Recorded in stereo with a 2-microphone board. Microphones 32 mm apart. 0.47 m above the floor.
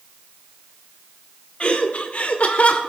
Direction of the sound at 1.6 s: 35° left (ahead or behind).